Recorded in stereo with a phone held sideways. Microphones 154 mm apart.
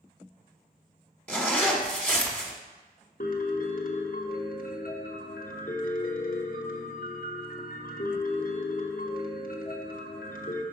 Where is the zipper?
10° left (ahead or behind), 1.1 m.